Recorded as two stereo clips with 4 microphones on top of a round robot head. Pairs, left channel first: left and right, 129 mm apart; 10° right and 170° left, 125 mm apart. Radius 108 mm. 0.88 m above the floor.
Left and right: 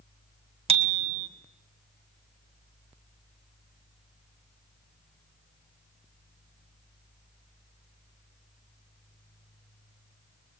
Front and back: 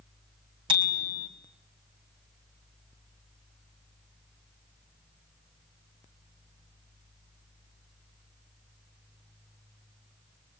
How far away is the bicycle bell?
About 2.5 m.